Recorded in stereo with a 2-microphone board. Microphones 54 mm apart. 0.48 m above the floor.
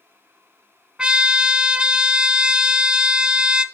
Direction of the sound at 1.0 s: 20° right (ahead or behind).